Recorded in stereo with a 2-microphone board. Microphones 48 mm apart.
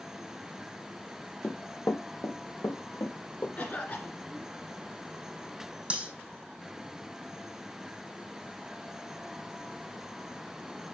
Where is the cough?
35° left (ahead or behind), 2.5 m.